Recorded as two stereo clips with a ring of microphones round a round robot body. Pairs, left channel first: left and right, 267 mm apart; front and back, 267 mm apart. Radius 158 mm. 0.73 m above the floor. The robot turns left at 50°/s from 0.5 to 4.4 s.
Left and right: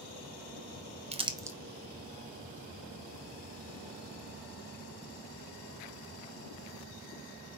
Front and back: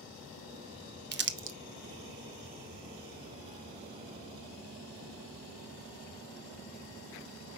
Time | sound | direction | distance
1.1 | crumpling | 150° right | 0.8 m